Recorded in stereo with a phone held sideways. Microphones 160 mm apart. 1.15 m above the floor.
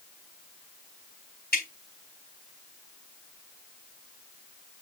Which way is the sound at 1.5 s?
85° left.